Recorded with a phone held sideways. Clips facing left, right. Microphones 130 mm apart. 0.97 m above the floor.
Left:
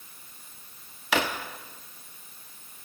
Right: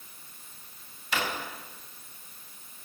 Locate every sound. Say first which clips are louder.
1.1 s a drawer: left 5 dB; 80° left, 1.0 m